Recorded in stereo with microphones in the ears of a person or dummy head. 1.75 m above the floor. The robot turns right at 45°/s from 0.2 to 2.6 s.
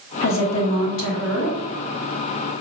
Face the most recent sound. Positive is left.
turn(degrees=-175)